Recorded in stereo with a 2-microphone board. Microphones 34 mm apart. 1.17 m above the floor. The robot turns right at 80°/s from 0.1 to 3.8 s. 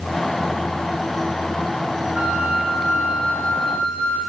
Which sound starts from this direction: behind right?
A flute, at 2.1 s.